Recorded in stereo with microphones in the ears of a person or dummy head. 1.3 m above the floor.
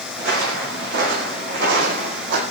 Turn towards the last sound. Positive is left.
turn(degrees=-60)  # may be behind; listen again after turning